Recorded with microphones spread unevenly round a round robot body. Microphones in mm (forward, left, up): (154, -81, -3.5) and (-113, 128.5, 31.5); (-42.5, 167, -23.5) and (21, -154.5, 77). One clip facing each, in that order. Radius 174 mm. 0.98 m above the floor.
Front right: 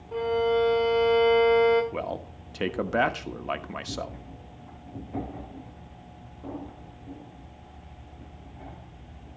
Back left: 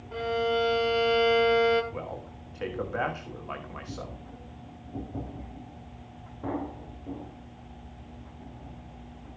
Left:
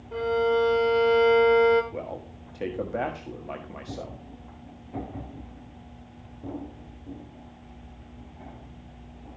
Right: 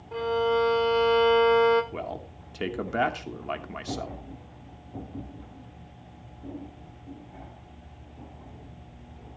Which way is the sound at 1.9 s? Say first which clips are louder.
Front right 4 dB, left 1 dB; 20° right.